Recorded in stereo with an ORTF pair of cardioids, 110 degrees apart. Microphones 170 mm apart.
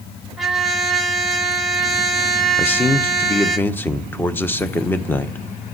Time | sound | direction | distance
0.4 | a trumpet | straight ahead | 2 m
2.6 | a man speaking | 10° left | 1.1 m